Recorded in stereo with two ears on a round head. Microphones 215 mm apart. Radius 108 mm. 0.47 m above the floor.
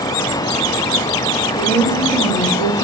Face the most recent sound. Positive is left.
turn(degrees=-10)  # may be behind; listen again after turning